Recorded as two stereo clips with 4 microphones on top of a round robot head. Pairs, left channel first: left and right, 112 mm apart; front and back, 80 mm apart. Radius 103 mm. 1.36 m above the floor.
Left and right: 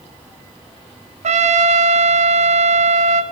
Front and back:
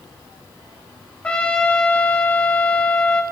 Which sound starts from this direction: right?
A trumpet, at 1.2 s.